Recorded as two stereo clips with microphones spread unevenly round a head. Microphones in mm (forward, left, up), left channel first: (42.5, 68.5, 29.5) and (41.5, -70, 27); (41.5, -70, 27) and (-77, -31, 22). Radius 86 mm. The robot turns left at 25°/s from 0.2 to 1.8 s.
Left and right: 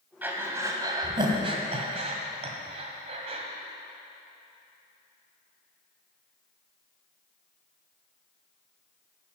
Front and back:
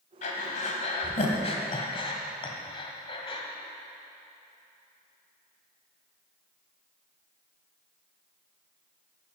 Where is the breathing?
15° right, 1.4 m; by 3.4 s 55° right, 1.4 m.